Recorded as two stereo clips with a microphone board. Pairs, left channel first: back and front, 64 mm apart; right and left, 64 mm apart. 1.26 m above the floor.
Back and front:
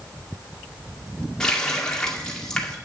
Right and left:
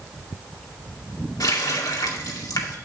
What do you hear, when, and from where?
1.4 s a running tap: 100° right, 2 m